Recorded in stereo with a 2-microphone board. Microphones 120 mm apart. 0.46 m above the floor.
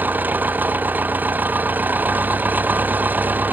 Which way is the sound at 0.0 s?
15° right (ahead or behind).